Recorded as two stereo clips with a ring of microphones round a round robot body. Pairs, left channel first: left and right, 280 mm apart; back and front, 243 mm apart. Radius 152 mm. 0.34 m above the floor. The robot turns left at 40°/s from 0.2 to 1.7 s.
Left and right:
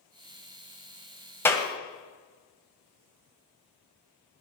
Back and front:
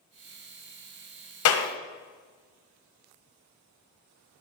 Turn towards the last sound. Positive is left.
turn(degrees=160)